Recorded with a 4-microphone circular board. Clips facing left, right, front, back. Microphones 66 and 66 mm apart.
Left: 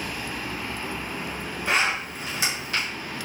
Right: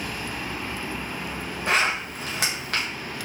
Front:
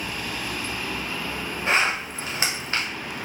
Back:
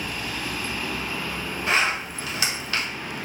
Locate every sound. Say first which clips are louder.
1.7 s a zipper: right 1 dB, front 1 dB; 60° right, 0.9 m